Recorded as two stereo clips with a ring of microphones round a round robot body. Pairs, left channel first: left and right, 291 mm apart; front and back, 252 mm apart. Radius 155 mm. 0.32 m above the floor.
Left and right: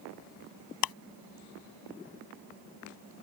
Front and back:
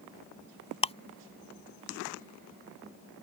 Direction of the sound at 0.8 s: 70° left.